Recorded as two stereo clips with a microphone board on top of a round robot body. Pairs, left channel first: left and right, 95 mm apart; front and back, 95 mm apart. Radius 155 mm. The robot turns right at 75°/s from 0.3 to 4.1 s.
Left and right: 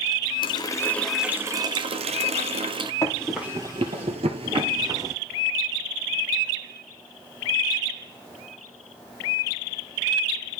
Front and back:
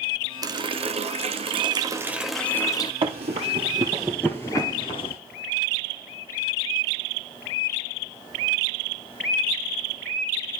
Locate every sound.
0.4 s a running tap: 130° left, 0.8 m; by 2.9 s 45° right, 0.8 m
3.0 s running footsteps: 150° left, 1.8 m; by 5.2 s 30° right, 1.5 m